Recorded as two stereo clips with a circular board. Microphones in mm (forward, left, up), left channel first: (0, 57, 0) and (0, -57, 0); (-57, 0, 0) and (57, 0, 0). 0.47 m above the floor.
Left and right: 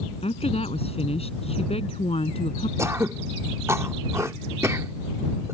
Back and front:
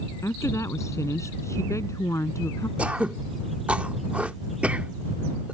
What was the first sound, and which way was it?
A woman speaking, 115° left.